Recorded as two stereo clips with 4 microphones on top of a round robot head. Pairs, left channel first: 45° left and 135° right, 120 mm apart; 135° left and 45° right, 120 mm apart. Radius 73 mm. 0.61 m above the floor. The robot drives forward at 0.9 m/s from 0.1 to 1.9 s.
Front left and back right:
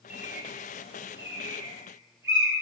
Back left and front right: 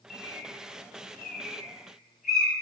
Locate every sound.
0.1 s a bird: 150° left, 3 m; by 2.5 s 160° left, 4.5 m